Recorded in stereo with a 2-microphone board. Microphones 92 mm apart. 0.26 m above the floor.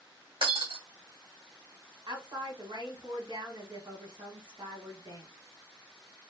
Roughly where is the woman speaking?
Right.